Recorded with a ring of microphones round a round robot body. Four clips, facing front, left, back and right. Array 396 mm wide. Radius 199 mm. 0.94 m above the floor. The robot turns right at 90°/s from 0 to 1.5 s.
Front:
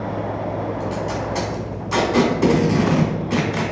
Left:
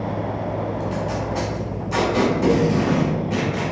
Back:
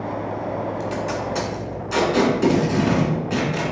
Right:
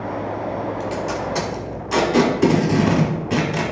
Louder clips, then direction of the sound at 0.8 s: Right 1 dB, front 1 dB; 130° right.